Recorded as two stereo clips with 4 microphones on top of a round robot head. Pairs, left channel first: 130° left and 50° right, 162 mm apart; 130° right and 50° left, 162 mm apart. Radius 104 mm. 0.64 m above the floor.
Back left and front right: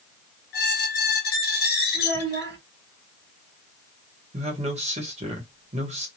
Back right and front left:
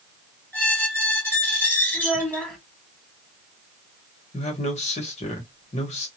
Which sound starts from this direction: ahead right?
A child speaking, at 1.9 s.